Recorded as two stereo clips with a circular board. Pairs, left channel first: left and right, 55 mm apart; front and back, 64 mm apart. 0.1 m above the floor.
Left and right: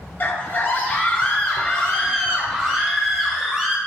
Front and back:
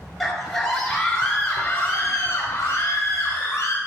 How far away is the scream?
About 1.6 m.